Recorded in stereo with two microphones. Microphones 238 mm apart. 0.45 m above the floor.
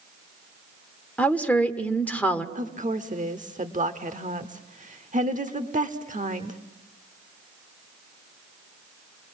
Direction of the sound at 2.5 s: 30° right (ahead or behind).